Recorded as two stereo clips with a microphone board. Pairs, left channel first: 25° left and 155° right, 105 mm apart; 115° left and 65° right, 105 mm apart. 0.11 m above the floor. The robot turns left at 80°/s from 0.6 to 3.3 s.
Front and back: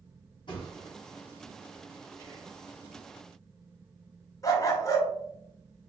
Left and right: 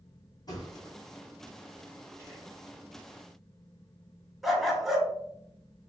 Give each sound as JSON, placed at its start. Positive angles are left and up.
{"t": 0.5, "sound": "a thud", "azimuth_deg": 60, "distance_m": 1.2}
{"t": 2.2, "sound": "whispering", "azimuth_deg": -110, "distance_m": 1.9}
{"t": 4.4, "sound": "a dog barking", "azimuth_deg": 20, "distance_m": 0.7}